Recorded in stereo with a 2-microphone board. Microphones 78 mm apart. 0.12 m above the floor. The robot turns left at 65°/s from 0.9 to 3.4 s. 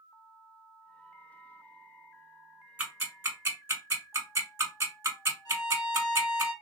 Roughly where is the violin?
Left.